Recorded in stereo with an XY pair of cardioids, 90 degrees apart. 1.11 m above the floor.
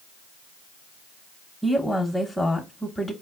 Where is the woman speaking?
10° left, 1.0 m.